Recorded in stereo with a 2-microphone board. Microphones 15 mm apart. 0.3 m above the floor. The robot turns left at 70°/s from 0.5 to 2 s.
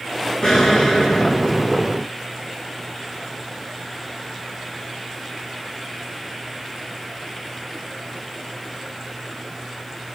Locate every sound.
0.4 s an explosion: 120° left, 4.5 m; by 2.0 s 15° left, 4.5 m